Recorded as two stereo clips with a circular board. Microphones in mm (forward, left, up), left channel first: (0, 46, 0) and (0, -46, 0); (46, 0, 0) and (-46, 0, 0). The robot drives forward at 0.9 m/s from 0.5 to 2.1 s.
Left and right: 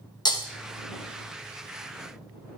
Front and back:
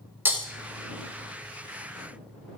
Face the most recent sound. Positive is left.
turn(degrees=155)